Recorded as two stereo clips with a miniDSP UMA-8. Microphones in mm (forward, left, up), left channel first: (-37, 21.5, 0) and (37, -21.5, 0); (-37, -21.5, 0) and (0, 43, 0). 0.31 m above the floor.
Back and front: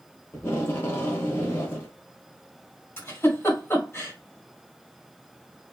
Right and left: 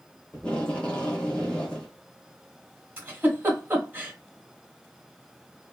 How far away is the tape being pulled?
About 0.8 m.